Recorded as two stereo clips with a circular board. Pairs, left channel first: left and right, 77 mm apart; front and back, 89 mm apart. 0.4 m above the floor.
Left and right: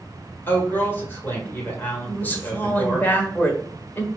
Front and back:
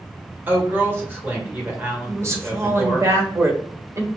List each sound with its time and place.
0.5 s a woman speaking: 130° left, 1.7 m
2.1 s a woman speaking: 145° left, 1.2 m